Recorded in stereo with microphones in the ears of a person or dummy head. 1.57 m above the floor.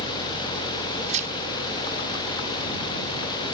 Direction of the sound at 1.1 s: 45° right (ahead or behind).